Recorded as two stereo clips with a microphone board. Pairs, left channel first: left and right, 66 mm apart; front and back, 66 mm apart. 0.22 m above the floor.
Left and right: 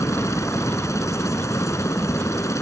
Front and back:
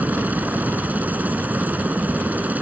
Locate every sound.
0.0 s a helicopter: 120° left